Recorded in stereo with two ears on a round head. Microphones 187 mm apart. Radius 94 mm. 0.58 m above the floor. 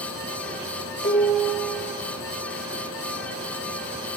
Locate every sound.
1.0 s dishes clattering: 45° left (ahead or behind), 2 m